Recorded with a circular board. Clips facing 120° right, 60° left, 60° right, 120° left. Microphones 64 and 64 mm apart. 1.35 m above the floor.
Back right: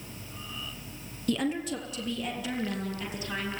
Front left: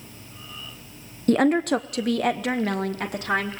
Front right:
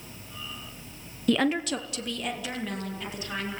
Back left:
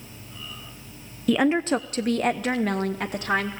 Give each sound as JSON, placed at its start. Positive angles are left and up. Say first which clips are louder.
{"t": 1.3, "sound": "a woman speaking", "louder": "front left 10 dB, back left 4 dB", "azimuth_deg": 35, "distance_m": 0.6}